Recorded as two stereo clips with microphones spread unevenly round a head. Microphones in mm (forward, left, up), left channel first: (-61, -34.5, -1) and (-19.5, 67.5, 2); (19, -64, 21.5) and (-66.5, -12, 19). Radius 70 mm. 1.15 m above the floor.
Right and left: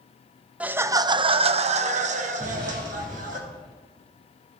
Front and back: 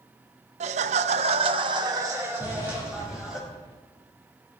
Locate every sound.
0.6 s laughter: 150° left, 0.7 m; by 3.4 s 65° left, 1.7 m
2.4 s an explosion: 30° left, 2.5 m